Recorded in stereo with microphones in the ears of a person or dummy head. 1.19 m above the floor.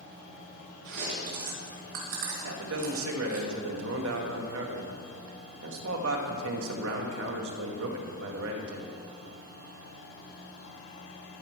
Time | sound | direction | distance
0.8 | chewing | 70° right (ahead or behind) | 3 m
2.5 | a man speaking | 75° right (ahead or behind) | 1.4 m